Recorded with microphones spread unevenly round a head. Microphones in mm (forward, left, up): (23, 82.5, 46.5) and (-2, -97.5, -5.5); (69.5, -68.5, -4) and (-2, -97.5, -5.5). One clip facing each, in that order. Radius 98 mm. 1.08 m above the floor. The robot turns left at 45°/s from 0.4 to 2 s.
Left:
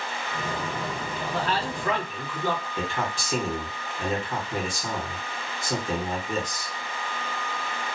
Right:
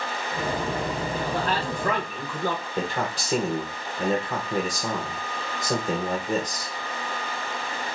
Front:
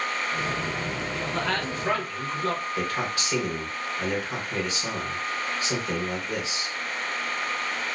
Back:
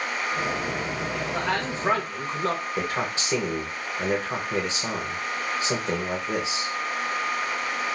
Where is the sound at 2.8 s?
105° right, 1.2 m.